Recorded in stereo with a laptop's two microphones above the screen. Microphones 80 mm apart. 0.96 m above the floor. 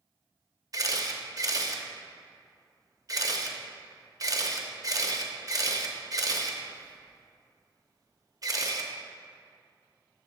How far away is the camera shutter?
About 0.6 m.